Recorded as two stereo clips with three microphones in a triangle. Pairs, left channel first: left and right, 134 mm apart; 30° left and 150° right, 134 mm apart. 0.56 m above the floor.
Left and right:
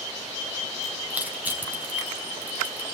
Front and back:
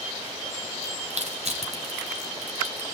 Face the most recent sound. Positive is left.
turn(degrees=-165)